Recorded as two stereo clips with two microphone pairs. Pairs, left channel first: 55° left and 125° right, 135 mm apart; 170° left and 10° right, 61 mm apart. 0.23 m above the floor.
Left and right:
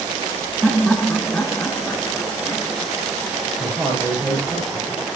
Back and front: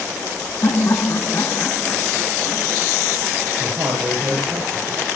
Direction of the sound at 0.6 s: 145° left.